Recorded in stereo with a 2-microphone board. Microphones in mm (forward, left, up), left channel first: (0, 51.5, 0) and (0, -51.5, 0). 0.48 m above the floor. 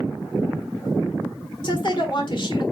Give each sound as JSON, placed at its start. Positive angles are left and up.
{"t": 1.6, "sound": "a woman speaking", "side_deg": 50, "distance_m": 1.3}